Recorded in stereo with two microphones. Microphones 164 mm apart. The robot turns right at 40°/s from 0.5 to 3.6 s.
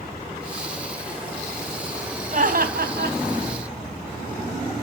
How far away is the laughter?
About 2.5 m.